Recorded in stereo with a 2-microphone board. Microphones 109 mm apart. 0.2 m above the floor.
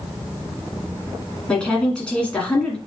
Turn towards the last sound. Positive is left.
turn(degrees=10)  # may be behind; listen again after turning